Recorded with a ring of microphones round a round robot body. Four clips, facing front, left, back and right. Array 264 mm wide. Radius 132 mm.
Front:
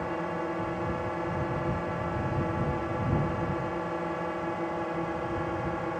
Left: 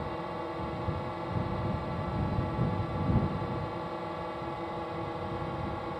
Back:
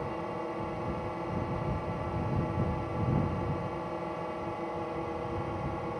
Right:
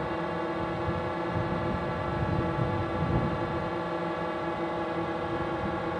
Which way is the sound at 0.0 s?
50° right.